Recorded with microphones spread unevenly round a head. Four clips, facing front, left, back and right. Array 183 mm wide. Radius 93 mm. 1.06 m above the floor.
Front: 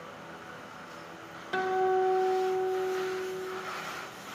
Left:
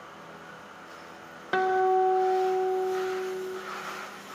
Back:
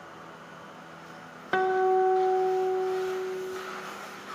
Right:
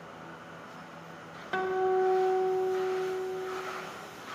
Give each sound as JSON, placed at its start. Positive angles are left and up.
{"t": 1.5, "sound": "a guitar", "azimuth_deg": 130, "distance_m": 1.1}